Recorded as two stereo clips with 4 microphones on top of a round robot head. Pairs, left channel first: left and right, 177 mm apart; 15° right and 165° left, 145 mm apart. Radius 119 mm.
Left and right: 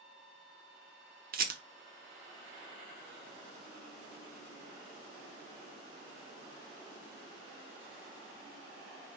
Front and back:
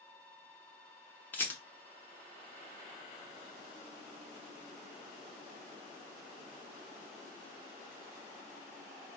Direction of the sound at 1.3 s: 90° right.